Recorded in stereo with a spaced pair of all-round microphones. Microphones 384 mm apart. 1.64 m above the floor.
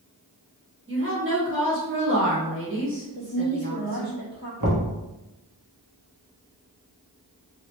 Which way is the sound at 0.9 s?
30° right (ahead or behind).